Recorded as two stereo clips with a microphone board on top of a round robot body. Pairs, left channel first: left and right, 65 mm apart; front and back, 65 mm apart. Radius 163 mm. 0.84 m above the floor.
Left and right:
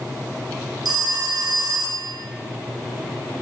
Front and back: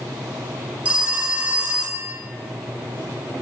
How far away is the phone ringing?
About 1.5 m.